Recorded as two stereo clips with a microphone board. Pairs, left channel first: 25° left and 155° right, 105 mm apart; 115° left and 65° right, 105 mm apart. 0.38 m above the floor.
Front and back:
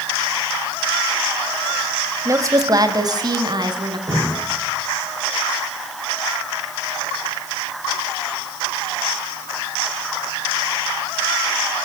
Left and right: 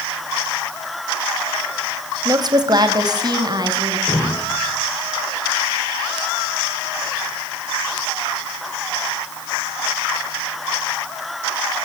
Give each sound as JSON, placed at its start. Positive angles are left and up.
{"t": 2.2, "sound": "a woman speaking", "azimuth_deg": -105, "distance_m": 2.0}
{"t": 4.1, "sound": "dripping", "azimuth_deg": 155, "distance_m": 8.5}